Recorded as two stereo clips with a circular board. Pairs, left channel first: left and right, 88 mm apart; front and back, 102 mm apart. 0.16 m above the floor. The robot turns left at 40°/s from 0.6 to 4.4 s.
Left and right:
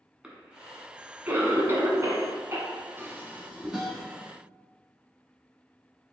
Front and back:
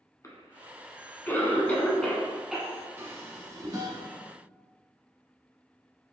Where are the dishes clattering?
130° right, 1.0 m; by 4.1 s 175° right, 1.0 m.